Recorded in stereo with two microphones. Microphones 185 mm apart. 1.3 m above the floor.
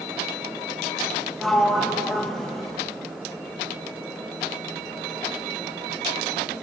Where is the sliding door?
Centre (ahead or behind), 0.6 m.